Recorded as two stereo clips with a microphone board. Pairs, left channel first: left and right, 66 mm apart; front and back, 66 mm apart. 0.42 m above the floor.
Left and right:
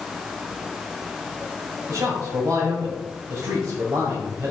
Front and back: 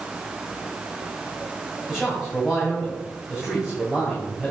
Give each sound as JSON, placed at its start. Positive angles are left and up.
{"t": 1.9, "sound": "a man speaking", "azimuth_deg": -100, "distance_m": 2.5}